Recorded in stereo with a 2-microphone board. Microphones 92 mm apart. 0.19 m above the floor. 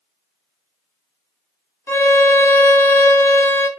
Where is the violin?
25° left (ahead or behind), 0.6 m.